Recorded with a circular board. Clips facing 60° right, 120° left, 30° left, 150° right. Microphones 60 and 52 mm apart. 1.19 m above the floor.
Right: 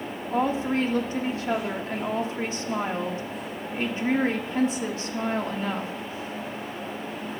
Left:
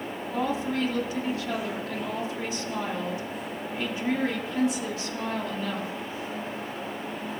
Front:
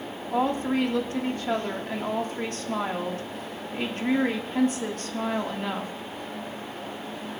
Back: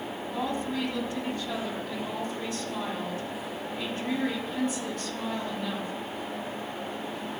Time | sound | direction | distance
0.3 | a woman speaking | 10° right | 1.9 m